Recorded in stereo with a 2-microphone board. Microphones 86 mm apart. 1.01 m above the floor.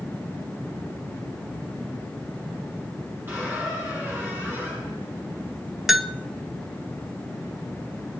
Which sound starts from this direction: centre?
A bell, at 5.9 s.